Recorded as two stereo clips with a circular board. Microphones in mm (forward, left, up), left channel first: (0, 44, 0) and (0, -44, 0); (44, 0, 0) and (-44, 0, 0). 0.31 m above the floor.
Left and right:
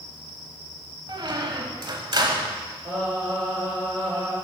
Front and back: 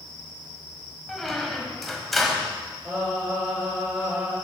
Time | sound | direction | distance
1.1 | a squeak | 90° right | 1.0 m
2.9 | singing | 100° right | 4 m